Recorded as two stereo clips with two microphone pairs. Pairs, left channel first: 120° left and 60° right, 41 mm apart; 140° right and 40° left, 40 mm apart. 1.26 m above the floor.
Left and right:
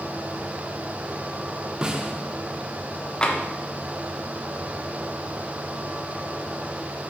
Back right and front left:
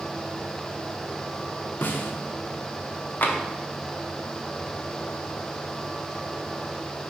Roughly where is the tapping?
Behind.